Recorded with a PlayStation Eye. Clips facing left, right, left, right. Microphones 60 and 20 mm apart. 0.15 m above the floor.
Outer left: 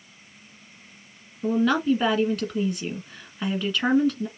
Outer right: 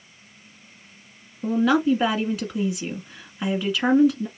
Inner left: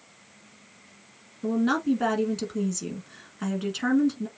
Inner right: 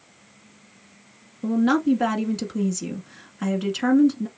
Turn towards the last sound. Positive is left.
turn(degrees=-5)  # may be behind; listen again after turning